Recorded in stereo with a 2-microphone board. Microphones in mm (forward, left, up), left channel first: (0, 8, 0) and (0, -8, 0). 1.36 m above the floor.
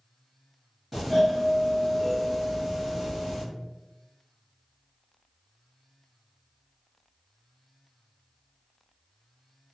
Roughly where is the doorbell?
Centre.